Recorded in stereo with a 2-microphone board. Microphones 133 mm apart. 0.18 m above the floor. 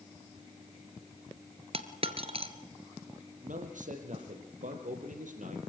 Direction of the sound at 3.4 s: 75° right (ahead or behind).